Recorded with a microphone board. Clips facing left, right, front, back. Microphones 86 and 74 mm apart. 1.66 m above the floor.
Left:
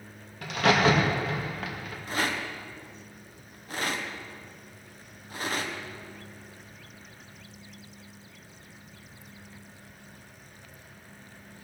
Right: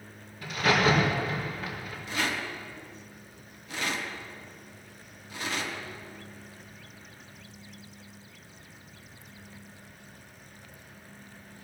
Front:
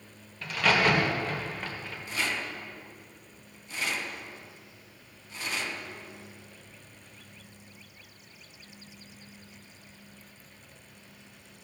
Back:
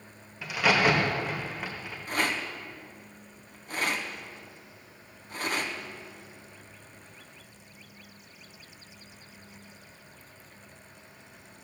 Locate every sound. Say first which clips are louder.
0.4 s a crack: left 2 dB, back 1 dB; 100° left, 2.0 m
2.1 s a rattle: left 2 dB, back 3 dB; 140° left, 1.2 m